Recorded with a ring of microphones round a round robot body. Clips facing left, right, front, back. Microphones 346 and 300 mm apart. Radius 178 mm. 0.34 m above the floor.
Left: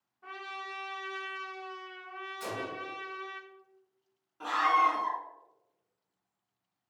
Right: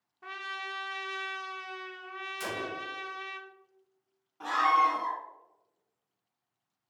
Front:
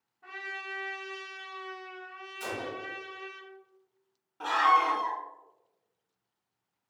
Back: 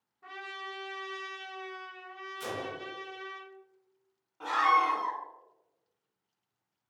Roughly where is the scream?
Ahead.